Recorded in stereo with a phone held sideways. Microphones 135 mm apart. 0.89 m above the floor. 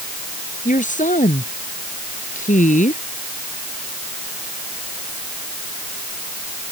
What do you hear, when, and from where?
0.7 s a woman speaking: 85° left